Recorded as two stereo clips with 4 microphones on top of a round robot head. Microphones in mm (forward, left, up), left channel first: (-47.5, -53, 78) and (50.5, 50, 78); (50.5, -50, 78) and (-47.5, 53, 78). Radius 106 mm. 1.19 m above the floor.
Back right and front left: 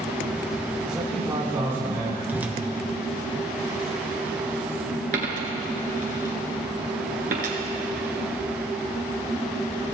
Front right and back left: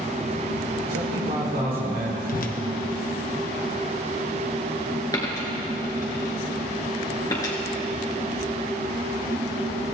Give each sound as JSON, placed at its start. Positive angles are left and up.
{"t": 0.9, "sound": "a man speaking", "azimuth_deg": 130, "distance_m": 4.0}
{"t": 2.3, "sound": "a whoosh", "azimuth_deg": -30, "distance_m": 1.1}
{"t": 5.1, "sound": "a dropped coin", "azimuth_deg": 20, "distance_m": 1.9}